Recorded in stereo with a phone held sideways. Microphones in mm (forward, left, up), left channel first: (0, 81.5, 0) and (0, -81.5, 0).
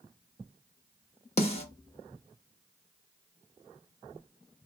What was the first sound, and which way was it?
A snare drum, 40° left (ahead or behind).